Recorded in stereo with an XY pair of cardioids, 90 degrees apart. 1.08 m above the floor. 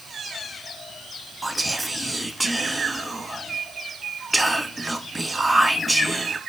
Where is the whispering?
15° right, 0.7 m.